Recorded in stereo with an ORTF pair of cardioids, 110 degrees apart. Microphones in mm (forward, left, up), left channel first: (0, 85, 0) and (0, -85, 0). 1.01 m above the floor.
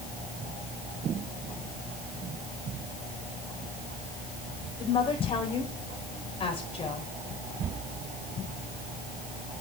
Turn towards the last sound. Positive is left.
turn(degrees=35)